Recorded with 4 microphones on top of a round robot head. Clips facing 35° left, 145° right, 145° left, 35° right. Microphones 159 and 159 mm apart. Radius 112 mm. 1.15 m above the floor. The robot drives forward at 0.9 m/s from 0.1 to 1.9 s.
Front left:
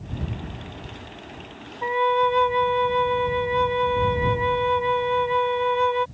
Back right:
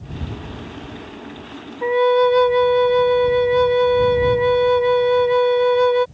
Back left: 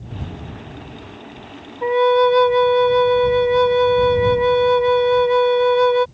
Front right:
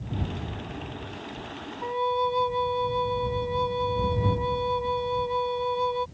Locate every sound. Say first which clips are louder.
1.8 s a flute: back right 7 dB, back left 13 dB; 165° left